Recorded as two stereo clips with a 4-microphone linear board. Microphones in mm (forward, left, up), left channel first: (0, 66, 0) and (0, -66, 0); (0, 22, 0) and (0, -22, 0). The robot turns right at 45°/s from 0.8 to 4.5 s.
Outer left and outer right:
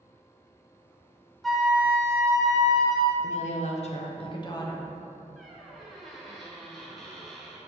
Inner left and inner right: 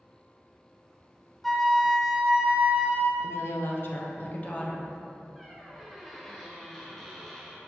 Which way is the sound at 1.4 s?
175° left.